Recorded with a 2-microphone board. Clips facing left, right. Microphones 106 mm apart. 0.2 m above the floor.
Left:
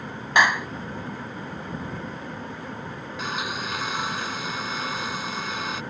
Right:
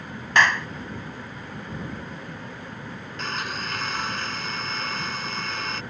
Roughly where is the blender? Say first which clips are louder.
Left 1 dB; centre.